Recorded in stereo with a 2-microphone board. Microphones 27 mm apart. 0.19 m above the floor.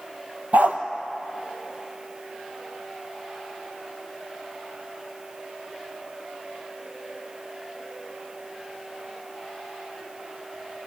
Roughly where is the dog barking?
Right.